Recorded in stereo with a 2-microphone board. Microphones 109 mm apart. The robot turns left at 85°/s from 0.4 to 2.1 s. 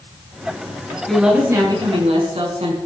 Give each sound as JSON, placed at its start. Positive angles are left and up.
{"t": 1.1, "sound": "a woman speaking", "azimuth_deg": 10, "distance_m": 5.0}